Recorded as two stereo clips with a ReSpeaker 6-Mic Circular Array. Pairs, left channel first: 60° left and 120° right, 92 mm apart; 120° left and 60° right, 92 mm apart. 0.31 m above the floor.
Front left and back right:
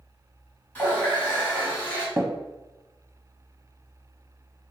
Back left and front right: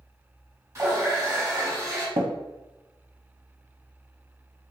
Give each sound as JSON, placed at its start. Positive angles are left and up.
{"t": 0.8, "sound": "a running tap", "azimuth_deg": -5, "distance_m": 1.3}
{"t": 2.2, "sound": "tapping", "azimuth_deg": -40, "distance_m": 0.5}